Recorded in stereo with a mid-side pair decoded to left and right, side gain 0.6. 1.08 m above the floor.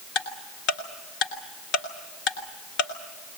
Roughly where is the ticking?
Ahead left.